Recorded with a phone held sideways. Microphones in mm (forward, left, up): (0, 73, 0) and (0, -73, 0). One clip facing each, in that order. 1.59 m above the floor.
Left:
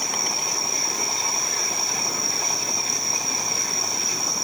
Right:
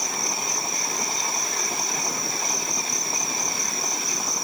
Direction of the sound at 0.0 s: 70° left (ahead or behind).